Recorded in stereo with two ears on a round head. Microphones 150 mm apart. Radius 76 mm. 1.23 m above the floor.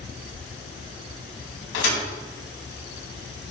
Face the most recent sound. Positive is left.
turn(degrees=80)